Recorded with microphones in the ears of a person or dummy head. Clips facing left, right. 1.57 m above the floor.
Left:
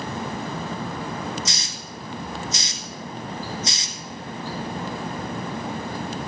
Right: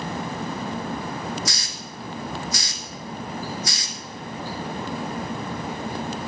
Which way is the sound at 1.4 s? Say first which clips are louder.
Right 1 dB; 20° left (ahead or behind).